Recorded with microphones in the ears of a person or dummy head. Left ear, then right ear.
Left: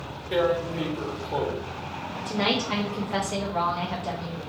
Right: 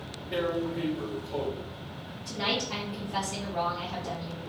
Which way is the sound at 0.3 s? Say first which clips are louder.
Left 6 dB; 65° left (ahead or behind).